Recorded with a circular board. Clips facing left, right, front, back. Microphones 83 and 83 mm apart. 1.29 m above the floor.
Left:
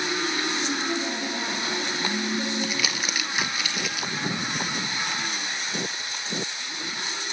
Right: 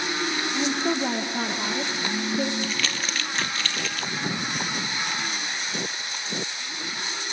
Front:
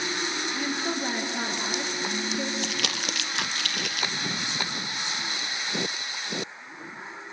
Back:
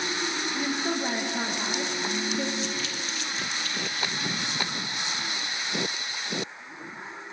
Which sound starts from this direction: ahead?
Crumpling, at 2.6 s.